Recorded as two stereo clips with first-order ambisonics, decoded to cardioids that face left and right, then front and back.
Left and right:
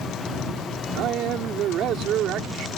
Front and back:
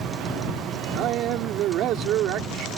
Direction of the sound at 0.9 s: 135° right.